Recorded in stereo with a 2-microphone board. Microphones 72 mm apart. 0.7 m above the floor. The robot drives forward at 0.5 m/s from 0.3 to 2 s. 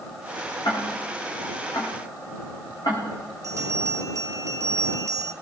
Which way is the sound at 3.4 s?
45° right (ahead or behind).